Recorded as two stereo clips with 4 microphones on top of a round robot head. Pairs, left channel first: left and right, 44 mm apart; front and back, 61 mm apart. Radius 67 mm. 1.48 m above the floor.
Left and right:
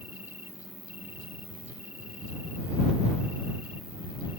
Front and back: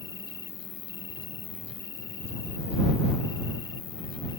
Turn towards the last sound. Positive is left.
turn(degrees=-20)